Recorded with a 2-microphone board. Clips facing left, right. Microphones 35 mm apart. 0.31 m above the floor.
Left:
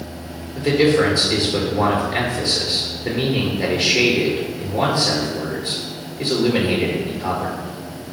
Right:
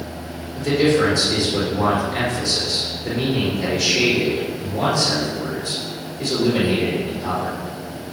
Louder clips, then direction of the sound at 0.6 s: Left 1 dB; 40° left (ahead or behind).